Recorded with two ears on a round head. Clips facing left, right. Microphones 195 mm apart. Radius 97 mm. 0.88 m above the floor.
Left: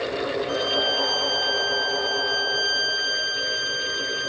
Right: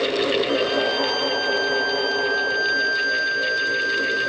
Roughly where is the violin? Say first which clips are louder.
Right 4 dB; left.